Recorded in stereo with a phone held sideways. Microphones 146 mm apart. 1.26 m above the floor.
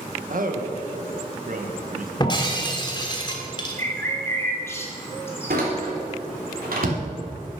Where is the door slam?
85° right, 3 m.